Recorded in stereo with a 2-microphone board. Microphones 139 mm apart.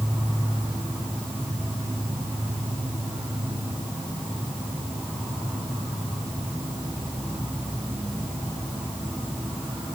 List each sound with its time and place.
0.0 s an insect: centre (ahead or behind), 9 m